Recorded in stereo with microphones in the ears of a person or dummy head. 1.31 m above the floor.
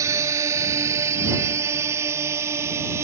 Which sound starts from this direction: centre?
A drone, at 0.0 s.